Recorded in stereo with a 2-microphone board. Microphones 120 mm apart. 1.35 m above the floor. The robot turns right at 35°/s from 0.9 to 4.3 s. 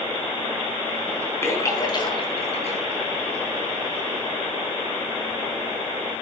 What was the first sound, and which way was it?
A splash, 20° left (ahead or behind).